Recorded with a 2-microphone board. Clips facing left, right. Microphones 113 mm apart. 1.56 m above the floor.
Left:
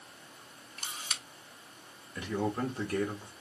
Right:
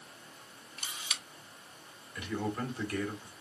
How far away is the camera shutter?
About 1.2 m.